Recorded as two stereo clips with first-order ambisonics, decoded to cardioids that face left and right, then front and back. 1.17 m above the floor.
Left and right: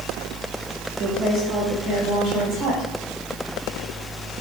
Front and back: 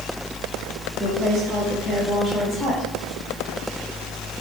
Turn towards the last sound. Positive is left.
turn(degrees=-110)